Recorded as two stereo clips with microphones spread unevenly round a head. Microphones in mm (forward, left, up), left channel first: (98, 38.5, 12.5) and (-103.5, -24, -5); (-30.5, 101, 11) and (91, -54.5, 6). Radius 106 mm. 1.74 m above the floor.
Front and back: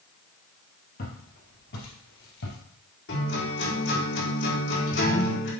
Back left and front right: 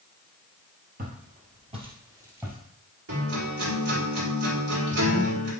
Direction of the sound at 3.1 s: 20° right.